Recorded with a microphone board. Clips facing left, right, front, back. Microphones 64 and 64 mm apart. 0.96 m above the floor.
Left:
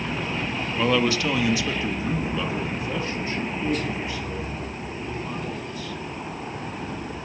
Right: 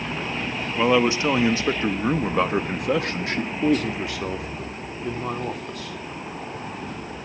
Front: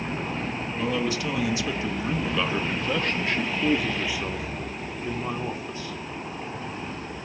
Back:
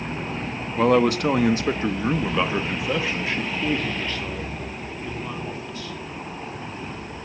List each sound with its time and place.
0.8 s a man speaking: 160° right, 1.7 m; by 6.0 s 65° right, 3.5 m